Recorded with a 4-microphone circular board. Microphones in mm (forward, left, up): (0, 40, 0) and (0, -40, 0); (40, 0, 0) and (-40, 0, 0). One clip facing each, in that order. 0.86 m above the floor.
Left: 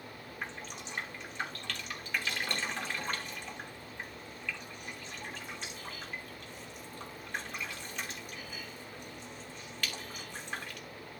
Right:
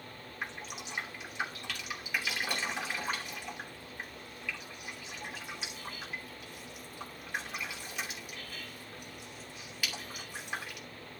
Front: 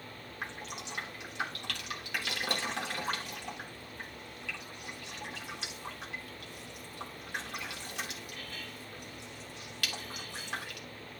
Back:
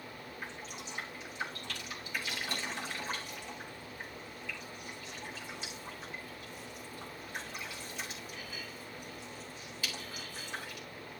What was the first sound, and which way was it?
Dripping, 5° right.